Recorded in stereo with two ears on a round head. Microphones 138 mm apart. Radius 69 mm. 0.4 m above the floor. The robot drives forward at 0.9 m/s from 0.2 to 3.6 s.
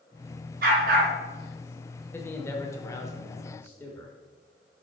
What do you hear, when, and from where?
0.6 s a dog barking: 60° right (ahead or behind), 2.5 m; by 1.1 s 70° right (ahead or behind), 2.5 m
2.1 s a man speaking: 15° left (ahead or behind), 1.2 m